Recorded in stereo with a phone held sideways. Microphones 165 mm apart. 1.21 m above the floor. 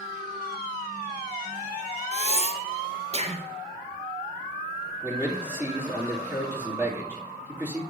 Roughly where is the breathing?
Right.